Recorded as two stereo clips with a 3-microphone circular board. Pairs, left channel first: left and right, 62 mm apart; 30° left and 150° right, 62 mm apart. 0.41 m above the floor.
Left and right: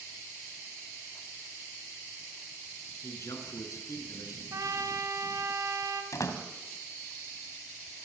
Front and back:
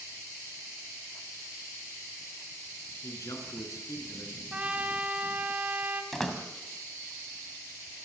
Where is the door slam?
115° left, 2.5 m.